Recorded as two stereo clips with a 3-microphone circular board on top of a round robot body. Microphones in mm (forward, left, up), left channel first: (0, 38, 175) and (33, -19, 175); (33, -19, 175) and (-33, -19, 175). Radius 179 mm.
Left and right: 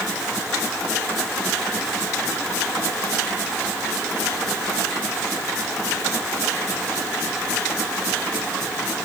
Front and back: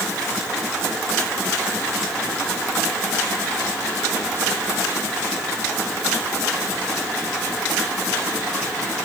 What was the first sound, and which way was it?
Only background noise.